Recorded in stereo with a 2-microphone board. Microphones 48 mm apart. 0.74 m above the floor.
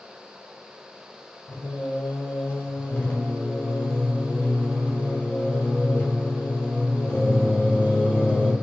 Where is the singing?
55° left (ahead or behind), 0.8 m.